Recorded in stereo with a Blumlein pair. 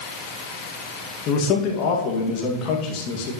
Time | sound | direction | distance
1.3 | a man speaking | 35° left | 2 m